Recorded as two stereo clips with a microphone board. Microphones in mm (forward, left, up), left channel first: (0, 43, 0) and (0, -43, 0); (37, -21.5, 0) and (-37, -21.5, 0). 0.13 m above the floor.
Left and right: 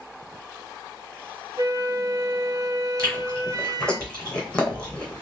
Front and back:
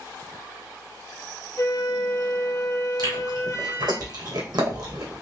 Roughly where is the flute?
Ahead right.